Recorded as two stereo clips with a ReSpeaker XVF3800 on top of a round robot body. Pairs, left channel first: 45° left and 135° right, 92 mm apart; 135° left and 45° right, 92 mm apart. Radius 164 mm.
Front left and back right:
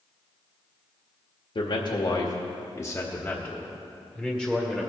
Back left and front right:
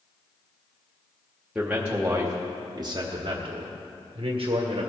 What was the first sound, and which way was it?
A man speaking, 35° left.